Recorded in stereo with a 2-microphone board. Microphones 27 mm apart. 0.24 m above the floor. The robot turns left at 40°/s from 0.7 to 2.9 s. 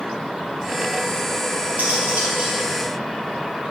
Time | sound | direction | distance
1.8 | cutlery clinking | 90° right | 3 m